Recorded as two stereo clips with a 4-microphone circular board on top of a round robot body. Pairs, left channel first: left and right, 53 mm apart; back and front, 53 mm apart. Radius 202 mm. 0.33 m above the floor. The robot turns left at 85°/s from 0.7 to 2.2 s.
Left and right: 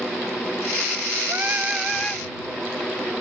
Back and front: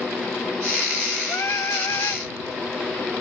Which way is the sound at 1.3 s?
130° right.